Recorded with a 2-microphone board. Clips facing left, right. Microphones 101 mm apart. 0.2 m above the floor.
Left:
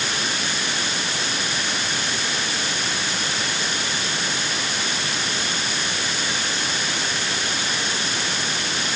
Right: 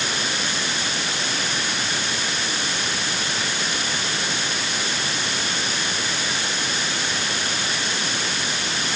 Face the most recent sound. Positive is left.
No sound to turn to.